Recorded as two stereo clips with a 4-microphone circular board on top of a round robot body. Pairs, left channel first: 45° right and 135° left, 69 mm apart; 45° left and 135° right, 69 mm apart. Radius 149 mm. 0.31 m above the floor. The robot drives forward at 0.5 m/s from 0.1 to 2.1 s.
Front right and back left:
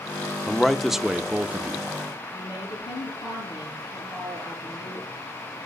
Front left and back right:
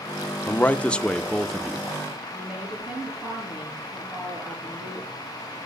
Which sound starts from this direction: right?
A woman speaking, at 2.3 s.